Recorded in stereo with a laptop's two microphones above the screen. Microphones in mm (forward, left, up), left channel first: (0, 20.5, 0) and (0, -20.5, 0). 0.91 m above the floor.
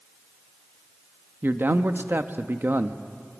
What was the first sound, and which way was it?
A man speaking, 60° right (ahead or behind).